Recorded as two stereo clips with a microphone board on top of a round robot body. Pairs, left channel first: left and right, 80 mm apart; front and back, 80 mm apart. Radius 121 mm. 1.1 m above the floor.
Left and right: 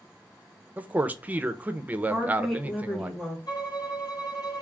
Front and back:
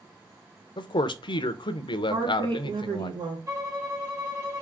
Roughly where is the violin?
Behind left.